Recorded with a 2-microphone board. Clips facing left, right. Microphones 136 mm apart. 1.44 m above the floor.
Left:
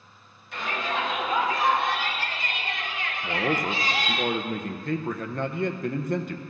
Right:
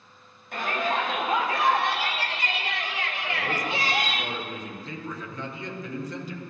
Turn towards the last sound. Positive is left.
turn(degrees=55)  # may be behind; listen again after turning